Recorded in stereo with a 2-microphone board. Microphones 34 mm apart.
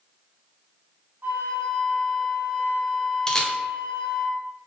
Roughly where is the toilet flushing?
I don't hear a toilet flushing.